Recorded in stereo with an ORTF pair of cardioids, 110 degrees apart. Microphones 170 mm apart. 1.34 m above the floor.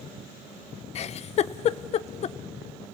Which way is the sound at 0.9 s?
40° left.